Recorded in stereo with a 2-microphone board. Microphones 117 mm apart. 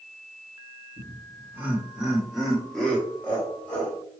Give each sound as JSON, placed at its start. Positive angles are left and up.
{"t": 1.0, "sound": "laughter", "side_deg": -20, "distance_m": 1.2}